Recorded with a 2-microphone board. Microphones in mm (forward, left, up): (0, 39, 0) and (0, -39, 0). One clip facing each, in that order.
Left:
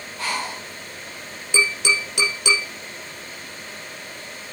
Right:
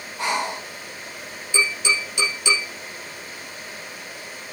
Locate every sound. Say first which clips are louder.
0.2 s breathing: right 3 dB; 20° right (ahead or behind), 0.6 m
1.5 s tapping: left 2 dB; 65° left (ahead or behind), 6 m